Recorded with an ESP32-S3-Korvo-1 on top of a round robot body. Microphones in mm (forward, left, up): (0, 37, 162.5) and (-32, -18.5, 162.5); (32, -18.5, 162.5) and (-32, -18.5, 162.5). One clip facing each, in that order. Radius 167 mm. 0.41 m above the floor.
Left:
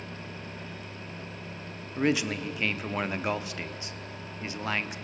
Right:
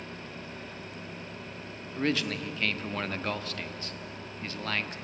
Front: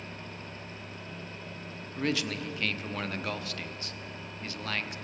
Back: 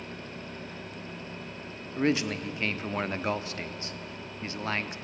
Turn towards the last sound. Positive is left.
turn(degrees=130)